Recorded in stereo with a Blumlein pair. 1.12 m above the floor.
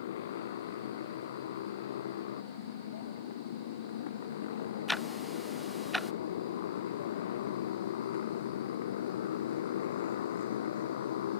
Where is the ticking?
Straight ahead.